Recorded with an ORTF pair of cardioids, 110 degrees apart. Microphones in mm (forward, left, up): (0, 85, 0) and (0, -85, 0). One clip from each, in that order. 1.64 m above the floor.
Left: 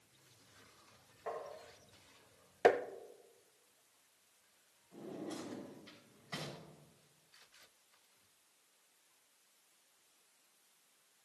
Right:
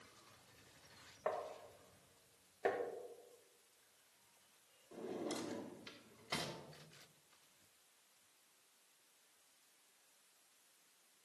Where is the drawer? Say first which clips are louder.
Right 2 dB; 65° right, 3.5 m.